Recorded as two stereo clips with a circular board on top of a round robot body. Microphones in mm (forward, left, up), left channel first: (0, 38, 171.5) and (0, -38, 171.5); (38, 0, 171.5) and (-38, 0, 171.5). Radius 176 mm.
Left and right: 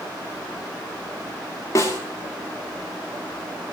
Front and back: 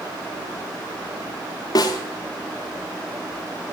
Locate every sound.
1.8 s a snare drum: 40° left, 0.6 m